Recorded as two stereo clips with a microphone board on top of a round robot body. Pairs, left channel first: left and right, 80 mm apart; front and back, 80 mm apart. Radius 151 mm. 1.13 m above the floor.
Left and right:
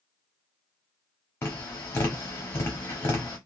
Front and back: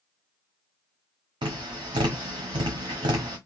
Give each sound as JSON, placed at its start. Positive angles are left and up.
{"t": 1.4, "sound": "tapping", "azimuth_deg": 155, "distance_m": 0.6}